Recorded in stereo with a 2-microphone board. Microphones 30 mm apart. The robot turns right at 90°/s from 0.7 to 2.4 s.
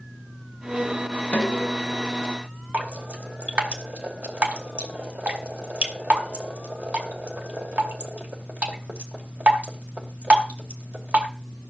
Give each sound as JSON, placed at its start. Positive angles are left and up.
{"t": 1.3, "sound": "a snare drum", "azimuth_deg": 65, "distance_m": 2.5}
{"t": 2.7, "sound": "dripping", "side_deg": -55, "distance_m": 2.5}